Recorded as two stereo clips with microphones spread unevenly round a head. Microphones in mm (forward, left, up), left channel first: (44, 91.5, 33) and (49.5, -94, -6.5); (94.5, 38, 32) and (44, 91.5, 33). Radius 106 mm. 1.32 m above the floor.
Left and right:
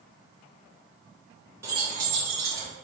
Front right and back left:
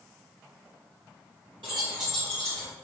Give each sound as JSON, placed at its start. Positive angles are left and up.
{"t": 1.6, "sound": "keys jangling", "azimuth_deg": -170, "distance_m": 0.6}